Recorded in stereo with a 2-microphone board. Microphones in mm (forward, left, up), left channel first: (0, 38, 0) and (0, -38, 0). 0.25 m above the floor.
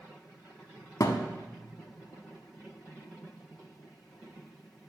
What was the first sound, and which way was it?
A thud, 50° left (ahead or behind).